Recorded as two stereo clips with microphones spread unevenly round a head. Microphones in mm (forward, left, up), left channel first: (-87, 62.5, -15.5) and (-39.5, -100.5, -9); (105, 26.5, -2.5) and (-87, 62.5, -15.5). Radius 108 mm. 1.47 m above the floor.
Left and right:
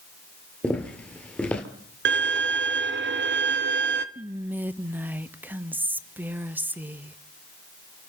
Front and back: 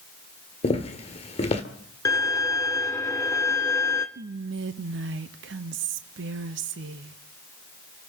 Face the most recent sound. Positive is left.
turn(degrees=-155)